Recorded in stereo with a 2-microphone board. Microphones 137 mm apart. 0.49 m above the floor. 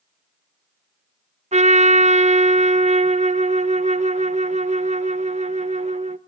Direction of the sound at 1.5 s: 60° right (ahead or behind).